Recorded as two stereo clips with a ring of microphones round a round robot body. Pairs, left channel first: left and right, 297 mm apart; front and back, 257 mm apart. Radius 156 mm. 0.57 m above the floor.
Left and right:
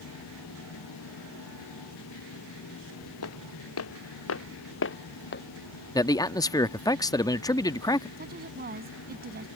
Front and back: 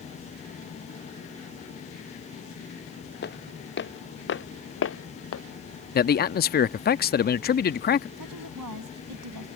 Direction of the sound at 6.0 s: 20° left.